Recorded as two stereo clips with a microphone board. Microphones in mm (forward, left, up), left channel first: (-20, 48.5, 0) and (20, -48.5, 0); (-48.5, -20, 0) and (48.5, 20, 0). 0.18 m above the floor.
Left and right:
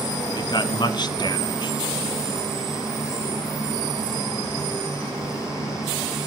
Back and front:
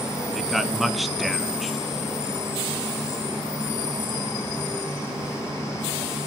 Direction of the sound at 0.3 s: 110° left.